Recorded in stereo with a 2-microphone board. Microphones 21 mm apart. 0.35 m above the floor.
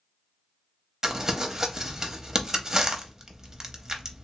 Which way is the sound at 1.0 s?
30° right (ahead or behind).